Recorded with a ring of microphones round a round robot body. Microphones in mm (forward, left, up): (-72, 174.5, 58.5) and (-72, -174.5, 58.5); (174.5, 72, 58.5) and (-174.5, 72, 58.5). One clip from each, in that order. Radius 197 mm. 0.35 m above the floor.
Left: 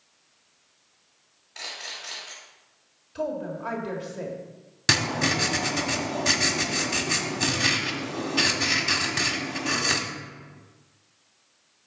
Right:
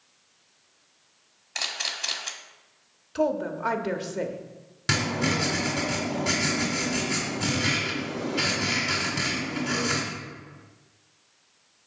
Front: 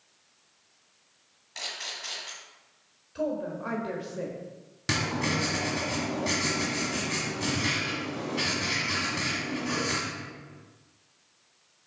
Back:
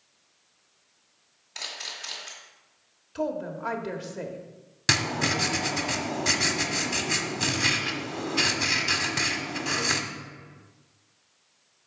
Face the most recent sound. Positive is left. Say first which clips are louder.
# left 3 dB, back 4 dB
turn(degrees=135)